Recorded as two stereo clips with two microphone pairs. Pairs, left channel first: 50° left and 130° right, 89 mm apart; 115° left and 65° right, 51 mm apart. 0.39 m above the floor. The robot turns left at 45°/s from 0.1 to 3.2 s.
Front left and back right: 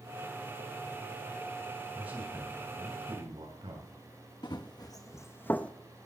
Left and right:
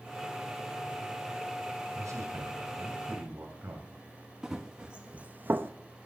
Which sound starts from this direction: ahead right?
A man speaking, at 1.9 s.